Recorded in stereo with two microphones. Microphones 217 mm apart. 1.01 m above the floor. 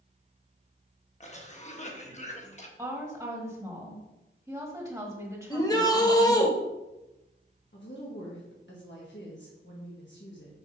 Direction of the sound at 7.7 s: 55° left (ahead or behind).